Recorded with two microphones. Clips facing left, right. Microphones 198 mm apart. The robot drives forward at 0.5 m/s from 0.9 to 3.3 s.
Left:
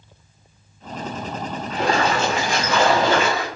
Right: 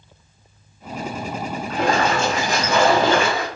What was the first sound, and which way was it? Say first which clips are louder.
A splash: right 1 dB; 55° right (ahead or behind).